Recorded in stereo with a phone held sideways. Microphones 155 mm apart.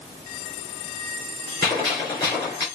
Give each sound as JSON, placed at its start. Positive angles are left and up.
{"t": 1.6, "sound": "a gunshot", "side_deg": 25, "distance_m": 3.5}